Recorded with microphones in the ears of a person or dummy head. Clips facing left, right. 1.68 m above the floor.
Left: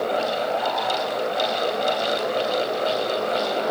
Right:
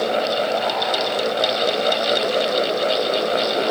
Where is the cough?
No cough in this recording.